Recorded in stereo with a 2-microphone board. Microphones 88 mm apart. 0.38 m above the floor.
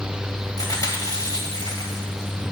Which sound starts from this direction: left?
Chewing, at 0.6 s.